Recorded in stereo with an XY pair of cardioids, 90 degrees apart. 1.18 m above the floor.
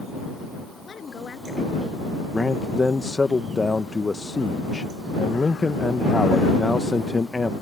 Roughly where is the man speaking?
Ahead left.